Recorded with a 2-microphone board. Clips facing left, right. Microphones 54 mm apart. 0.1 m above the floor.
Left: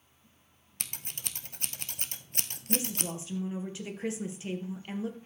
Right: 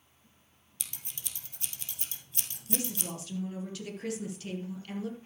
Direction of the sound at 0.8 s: 60° left (ahead or behind).